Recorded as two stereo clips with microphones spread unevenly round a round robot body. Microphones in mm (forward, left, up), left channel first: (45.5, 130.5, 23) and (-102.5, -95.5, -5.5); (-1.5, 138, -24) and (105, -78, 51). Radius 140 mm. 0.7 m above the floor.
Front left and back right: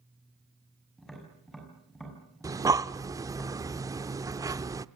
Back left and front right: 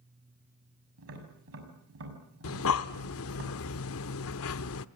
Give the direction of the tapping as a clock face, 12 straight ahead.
1 o'clock.